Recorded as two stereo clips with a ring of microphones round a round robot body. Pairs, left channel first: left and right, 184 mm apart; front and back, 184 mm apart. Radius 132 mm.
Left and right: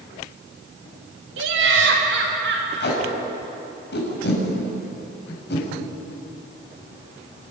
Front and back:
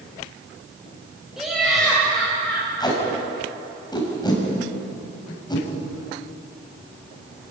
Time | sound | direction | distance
1.4 | laughter | 90° right | 4 m
2.8 | tape being pulled | 70° left | 6 m